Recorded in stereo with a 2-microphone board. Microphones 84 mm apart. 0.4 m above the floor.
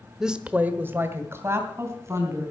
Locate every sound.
0.2 s a woman speaking: 5° right (ahead or behind), 0.9 m; by 2.5 s 35° right (ahead or behind), 3.5 m